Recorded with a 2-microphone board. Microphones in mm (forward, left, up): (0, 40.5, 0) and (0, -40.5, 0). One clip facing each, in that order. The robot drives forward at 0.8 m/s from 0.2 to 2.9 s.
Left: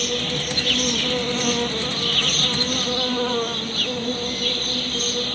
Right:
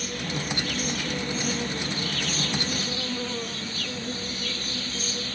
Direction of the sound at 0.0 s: 80° left.